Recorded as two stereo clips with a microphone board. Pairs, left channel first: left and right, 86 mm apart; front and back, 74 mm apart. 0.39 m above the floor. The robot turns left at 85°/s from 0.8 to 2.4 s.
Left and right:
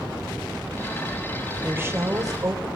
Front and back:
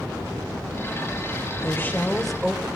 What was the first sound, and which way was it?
A woman speaking, 30° right.